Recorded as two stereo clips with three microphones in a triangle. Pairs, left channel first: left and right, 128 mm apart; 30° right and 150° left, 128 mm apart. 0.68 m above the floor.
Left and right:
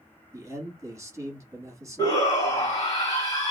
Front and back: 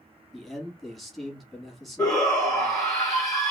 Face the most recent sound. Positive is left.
turn(degrees=35)